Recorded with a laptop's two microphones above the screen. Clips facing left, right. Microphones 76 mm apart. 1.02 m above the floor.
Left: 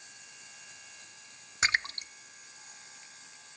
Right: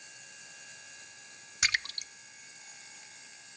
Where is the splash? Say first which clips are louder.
Left 3 dB; 30° left (ahead or behind).